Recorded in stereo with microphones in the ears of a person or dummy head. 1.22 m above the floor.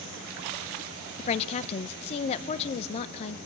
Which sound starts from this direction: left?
A woman speaking, at 1.2 s.